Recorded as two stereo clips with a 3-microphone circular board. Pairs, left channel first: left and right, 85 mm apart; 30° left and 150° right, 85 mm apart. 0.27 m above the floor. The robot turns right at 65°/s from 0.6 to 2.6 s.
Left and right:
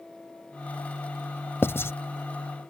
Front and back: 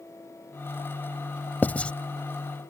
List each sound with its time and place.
1.6 s writing: 75° left; by 1.9 s 90° left